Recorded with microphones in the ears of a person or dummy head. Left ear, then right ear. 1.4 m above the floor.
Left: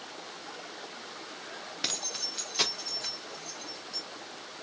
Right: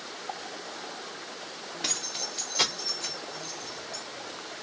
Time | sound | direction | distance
1.8 | keys jangling | 25° left (ahead or behind) | 0.7 m